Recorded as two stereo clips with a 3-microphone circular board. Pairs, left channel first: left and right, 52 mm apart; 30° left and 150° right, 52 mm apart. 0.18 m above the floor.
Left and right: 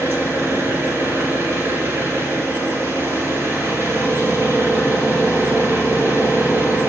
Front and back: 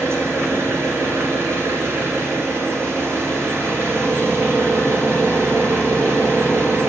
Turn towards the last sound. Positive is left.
turn(degrees=-120)